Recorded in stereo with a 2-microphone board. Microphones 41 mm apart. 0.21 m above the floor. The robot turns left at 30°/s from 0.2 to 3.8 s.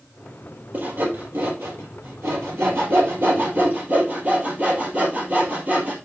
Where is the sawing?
50° right (ahead or behind), 3.5 m; by 6.0 s 35° right (ahead or behind), 3.5 m.